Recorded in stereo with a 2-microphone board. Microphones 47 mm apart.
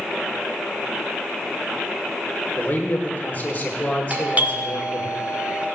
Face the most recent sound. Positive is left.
turn(degrees=-35)  # may be behind; listen again after turning